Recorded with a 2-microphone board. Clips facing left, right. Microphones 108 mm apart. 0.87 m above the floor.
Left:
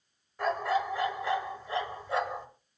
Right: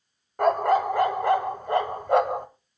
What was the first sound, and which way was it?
A dog barking, 55° right (ahead or behind).